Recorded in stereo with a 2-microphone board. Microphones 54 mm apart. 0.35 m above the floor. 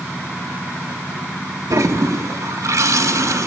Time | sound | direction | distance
1.7 | a toilet flushing | 80° right | 0.6 m